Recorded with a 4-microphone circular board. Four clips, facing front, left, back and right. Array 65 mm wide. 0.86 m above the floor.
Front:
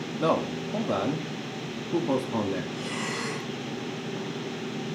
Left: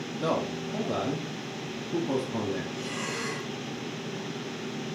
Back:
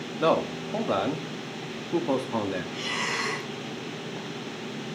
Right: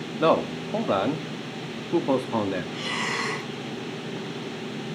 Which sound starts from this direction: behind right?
Breathing, at 2.7 s.